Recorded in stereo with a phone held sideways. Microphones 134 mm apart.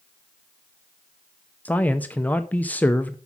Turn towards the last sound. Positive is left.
turn(degrees=10)  # may be behind; listen again after turning